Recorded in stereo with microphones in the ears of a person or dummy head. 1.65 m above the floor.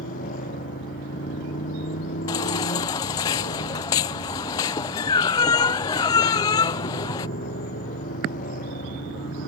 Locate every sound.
0.0 s a motorcycle: 45° left (ahead or behind)
2.3 s a baby crying: 20° left (ahead or behind)